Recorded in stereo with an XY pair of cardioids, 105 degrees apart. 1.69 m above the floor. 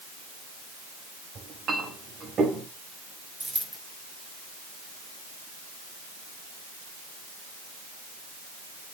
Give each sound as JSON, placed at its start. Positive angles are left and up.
{"t": 1.4, "sound": "a clink", "azimuth_deg": -55, "distance_m": 5.0}
{"t": 3.4, "sound": "a dropped coin", "azimuth_deg": -15, "distance_m": 3.5}